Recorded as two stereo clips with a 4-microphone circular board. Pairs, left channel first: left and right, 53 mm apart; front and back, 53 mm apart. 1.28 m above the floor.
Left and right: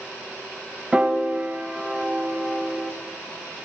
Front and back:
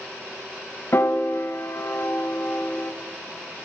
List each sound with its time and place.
0.9 s a piano: 25° right, 1.8 m